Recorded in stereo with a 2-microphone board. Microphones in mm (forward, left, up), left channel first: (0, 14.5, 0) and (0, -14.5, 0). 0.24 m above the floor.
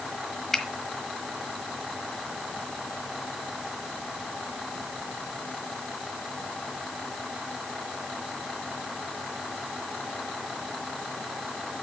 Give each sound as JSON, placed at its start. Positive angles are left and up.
{"t": 0.5, "sound": "a finger snap", "side_deg": 15, "distance_m": 1.2}